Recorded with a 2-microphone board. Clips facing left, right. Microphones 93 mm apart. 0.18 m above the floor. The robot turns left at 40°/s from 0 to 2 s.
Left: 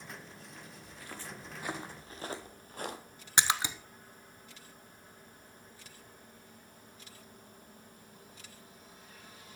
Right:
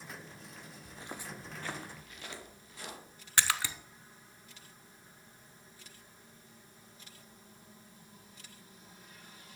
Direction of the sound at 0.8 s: 35° right (ahead or behind).